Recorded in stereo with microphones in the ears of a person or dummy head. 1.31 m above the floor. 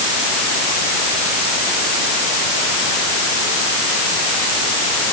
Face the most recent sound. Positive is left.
No sound to turn to.